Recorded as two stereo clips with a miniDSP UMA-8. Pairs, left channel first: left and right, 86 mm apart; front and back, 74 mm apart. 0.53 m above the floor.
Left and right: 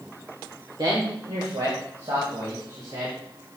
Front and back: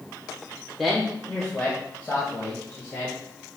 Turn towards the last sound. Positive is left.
turn(degrees=-55)